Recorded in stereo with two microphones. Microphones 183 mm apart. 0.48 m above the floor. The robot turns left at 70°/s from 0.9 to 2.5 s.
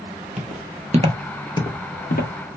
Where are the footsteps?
40° right (ahead or behind), 0.8 m; by 2.3 s 55° left (ahead or behind), 1.0 m.